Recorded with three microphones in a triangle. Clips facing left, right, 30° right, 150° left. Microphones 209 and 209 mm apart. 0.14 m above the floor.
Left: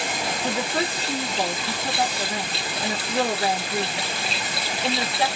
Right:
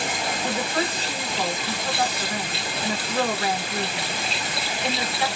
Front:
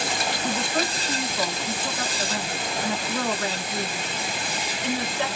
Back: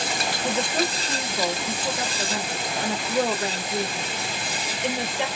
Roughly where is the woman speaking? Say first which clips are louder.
Left 1 dB, back 3 dB; left.